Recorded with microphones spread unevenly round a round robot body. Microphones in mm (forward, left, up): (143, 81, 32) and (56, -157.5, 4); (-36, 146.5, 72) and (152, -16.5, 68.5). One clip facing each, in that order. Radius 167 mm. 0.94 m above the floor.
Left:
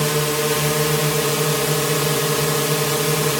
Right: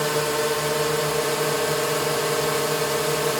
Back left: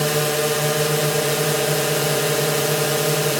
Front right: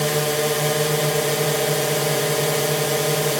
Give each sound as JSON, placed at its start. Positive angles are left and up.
{"t": 0.0, "sound": "a drone", "azimuth_deg": 55}